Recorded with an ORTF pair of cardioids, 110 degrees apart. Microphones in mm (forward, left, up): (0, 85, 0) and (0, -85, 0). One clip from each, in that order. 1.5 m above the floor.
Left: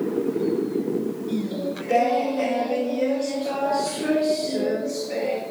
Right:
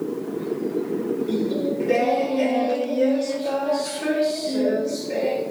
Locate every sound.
1.3 s singing: 25° right, 1.4 m